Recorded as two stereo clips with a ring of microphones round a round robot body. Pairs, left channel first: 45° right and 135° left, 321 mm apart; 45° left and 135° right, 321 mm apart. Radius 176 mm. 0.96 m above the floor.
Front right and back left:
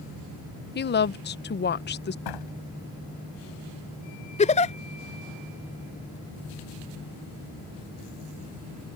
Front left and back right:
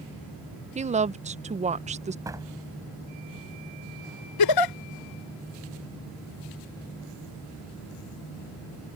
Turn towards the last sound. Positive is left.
turn(degrees=25)